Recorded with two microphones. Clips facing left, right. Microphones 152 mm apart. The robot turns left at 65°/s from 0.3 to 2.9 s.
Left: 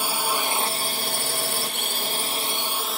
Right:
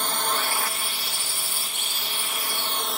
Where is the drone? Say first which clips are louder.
Left 1 dB; 170° left; by 3.0 s straight ahead.